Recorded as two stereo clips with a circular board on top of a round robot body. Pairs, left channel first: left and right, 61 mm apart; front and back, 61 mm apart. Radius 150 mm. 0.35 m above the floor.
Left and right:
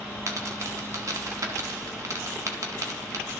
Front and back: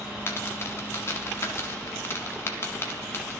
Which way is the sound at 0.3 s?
55° right.